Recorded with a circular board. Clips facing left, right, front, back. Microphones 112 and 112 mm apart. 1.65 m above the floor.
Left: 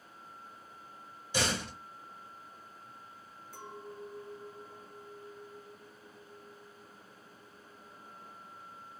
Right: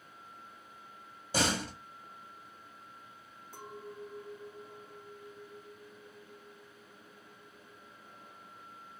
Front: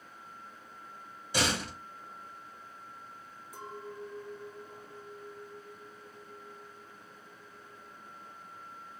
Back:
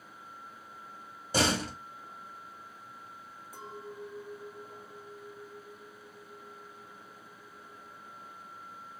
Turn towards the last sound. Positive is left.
turn(degrees=-130)